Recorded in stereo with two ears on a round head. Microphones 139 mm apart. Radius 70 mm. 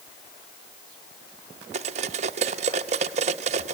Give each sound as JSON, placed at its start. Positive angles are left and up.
{"t": 1.7, "sound": "cutlery clinking", "side_deg": -45, "distance_m": 0.8}